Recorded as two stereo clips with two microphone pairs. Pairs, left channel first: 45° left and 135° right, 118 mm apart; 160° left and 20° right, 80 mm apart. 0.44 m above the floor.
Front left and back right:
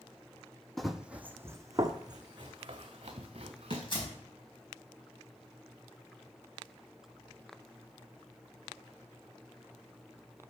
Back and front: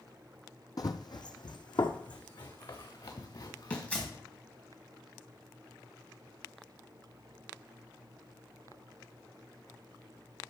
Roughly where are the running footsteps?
Behind left.